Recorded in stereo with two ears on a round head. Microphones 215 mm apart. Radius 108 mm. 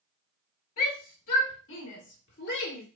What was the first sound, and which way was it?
A shout, 60° left (ahead or behind).